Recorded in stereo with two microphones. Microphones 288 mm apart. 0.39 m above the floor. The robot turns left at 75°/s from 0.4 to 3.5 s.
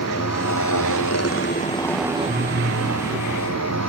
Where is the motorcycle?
120° left; by 3.9 s 115° right.